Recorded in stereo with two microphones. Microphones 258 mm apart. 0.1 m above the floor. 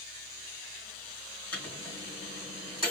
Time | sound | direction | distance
1.5 | a microwave | 70° left (ahead or behind) | 3 m